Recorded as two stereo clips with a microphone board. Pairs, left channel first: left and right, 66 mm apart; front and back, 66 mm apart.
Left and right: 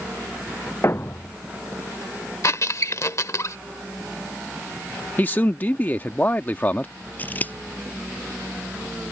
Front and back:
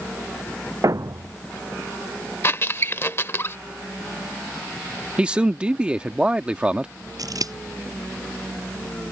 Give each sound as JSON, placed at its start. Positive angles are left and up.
{"t": 0.8, "sound": "a thud", "azimuth_deg": 140}
{"t": 2.4, "sound": "a squeak", "azimuth_deg": 50}
{"t": 5.2, "sound": "a man speaking", "azimuth_deg": 120}
{"t": 7.2, "sound": "scissors", "azimuth_deg": 155}